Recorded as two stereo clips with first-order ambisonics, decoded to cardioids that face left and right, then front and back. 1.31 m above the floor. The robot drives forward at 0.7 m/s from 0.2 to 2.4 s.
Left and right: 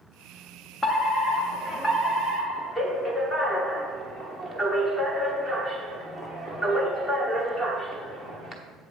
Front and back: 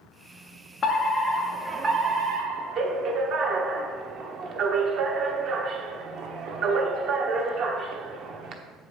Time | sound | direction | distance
0.8 | a fire alarm | 30° left | 1.0 m